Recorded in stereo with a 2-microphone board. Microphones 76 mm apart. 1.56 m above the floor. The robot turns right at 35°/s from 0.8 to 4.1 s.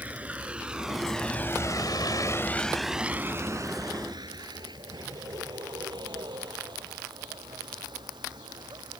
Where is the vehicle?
20° right (ahead or behind); by 9.0 s 75° right (ahead or behind).